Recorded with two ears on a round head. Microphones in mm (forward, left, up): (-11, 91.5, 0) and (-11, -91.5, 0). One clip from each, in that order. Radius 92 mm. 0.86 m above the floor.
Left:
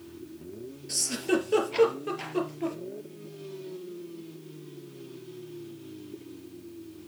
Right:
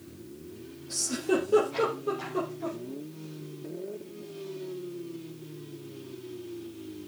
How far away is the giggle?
About 3.5 m.